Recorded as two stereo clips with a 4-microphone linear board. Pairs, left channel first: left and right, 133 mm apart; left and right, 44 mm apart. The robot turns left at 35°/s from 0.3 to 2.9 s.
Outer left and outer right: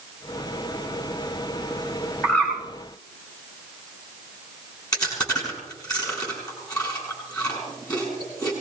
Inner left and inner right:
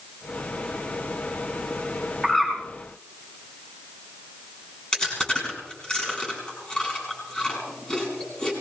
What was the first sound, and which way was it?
A bird, 10° left (ahead or behind).